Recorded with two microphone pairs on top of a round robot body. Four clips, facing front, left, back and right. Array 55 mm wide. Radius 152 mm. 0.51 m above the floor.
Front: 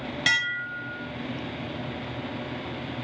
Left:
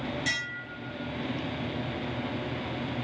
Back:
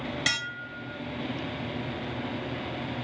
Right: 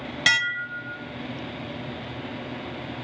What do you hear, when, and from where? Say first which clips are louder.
0.3 s dishes clattering: right 10 dB, front 9 dB; 80° right, 0.8 m